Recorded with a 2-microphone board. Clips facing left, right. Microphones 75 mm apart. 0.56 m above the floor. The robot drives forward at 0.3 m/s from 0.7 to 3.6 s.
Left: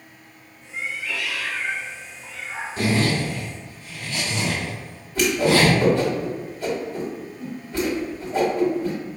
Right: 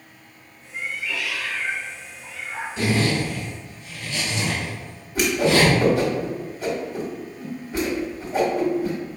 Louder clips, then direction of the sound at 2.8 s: Even; 40° left (ahead or behind).